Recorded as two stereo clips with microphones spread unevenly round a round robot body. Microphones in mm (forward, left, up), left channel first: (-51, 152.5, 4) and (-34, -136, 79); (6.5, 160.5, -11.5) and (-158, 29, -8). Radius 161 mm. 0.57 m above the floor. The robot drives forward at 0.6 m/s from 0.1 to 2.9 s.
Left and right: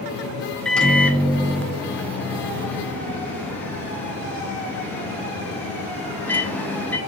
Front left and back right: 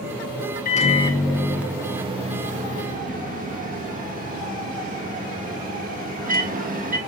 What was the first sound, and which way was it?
A microwave, 30° left.